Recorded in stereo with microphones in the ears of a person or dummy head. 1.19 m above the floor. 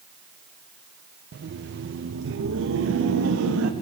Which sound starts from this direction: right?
Laughter, at 1.3 s.